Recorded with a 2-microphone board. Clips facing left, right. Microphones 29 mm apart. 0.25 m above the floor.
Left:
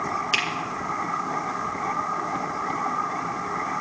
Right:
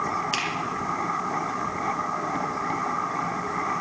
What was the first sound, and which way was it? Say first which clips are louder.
A finger snap: left 7 dB; 15° left (ahead or behind).